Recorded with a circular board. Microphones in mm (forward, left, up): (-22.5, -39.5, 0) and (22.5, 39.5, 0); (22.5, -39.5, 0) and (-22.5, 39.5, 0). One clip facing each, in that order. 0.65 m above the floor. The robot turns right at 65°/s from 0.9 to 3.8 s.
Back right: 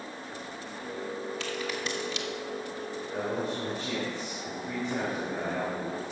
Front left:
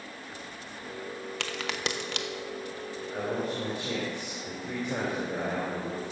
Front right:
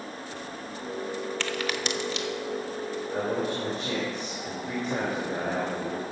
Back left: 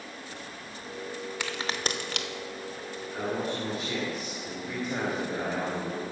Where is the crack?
40° left, 0.7 m; by 2.3 s 95° left, 0.7 m.